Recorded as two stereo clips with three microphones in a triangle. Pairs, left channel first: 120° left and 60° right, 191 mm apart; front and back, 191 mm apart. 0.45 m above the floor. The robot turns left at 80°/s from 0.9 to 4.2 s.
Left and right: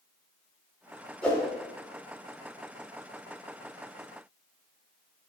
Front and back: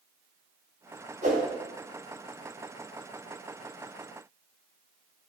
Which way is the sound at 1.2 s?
155° right.